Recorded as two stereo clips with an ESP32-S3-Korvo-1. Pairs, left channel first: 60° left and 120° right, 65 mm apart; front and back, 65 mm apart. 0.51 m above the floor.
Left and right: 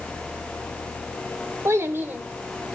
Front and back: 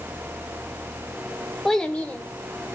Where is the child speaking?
85° right, 0.9 m; by 2.8 s 45° right, 1.3 m.